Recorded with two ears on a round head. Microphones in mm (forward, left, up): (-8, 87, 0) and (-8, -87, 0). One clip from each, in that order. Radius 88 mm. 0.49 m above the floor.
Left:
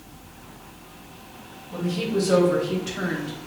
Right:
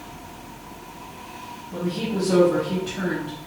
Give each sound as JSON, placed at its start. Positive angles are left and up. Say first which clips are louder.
{"t": 1.7, "sound": "a woman speaking", "louder": "left 2 dB", "side_deg": 45, "distance_m": 2.5}